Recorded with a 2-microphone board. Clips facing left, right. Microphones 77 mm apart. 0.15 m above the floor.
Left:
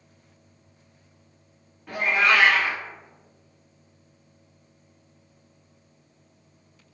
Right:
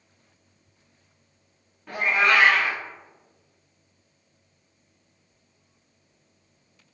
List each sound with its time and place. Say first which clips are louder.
1.9 s a cat meowing: even; centre (ahead or behind), 1.7 m